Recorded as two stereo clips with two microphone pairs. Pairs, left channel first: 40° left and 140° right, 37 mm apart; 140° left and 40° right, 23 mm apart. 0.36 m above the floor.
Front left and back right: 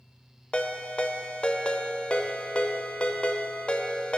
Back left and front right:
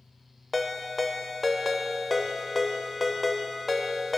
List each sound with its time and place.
0.5 s a ringtone: 50° left, 0.6 m